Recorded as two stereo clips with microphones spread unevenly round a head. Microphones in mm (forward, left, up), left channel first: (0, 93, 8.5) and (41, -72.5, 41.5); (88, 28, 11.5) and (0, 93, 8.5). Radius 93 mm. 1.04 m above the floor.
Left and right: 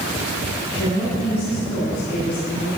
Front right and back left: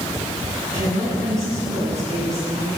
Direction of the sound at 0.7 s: 165° left.